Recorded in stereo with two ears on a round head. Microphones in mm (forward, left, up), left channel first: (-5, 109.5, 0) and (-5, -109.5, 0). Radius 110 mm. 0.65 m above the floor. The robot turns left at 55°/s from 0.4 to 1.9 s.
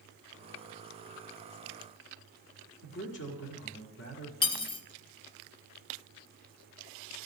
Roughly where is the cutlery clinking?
Left.